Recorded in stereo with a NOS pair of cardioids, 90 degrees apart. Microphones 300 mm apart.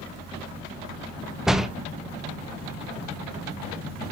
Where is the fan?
55° right, 7 m.